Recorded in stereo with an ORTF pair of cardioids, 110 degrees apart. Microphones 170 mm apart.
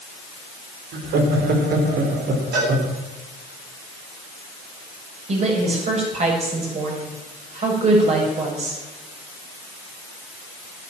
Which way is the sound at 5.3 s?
40° right.